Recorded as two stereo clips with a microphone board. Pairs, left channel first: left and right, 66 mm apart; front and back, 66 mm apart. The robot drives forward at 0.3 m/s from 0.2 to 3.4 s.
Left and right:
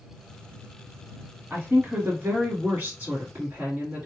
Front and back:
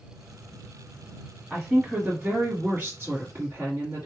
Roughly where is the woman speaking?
Right.